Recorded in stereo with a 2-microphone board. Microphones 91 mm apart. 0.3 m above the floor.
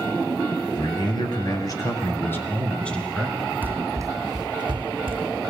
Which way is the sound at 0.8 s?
60° left (ahead or behind).